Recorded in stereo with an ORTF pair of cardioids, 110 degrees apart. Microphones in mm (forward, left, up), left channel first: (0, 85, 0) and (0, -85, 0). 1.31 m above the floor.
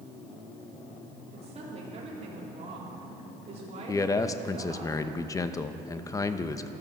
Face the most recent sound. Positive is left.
turn(degrees=20)